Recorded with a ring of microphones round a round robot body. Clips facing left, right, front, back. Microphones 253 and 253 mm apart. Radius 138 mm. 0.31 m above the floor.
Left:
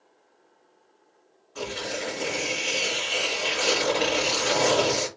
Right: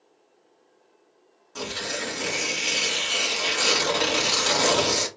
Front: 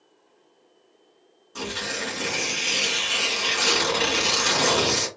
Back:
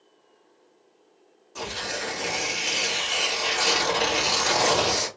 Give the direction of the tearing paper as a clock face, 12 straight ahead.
2 o'clock.